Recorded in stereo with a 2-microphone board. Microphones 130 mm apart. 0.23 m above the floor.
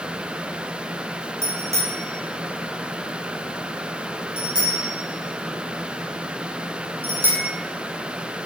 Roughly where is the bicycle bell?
Right.